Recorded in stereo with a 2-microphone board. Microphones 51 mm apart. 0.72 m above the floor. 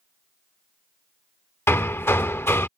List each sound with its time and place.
1.7 s hammering: 55° left (ahead or behind)